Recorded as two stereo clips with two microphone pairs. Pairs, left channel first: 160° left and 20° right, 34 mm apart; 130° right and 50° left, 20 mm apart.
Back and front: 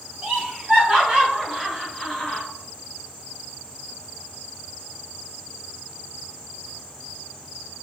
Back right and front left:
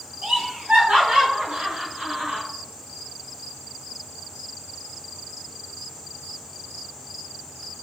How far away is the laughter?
About 1.3 m.